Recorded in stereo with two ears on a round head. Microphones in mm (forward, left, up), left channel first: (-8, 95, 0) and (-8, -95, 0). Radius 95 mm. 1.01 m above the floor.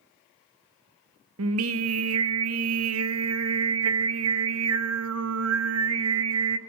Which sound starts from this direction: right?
Singing, at 1.4 s.